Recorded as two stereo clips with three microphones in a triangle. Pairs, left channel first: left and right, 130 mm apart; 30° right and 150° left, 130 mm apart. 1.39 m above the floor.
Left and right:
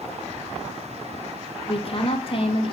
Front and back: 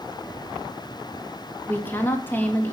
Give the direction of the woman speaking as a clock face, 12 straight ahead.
10 o'clock.